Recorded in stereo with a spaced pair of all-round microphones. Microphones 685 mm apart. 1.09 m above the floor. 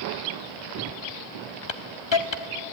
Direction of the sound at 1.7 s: 40° left (ahead or behind).